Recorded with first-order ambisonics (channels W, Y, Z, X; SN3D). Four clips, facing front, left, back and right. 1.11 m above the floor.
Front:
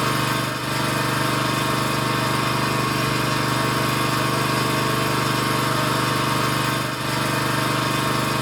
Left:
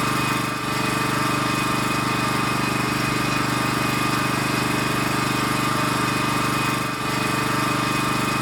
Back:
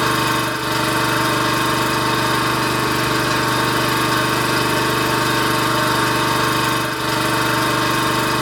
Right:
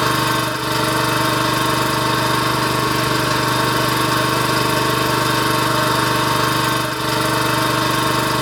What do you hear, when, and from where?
0.0 s an engine running: 120° right, 4 m